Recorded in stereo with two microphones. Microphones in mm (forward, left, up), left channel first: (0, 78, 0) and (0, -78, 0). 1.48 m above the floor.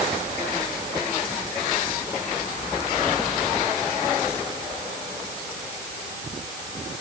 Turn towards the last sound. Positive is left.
No sound to turn to.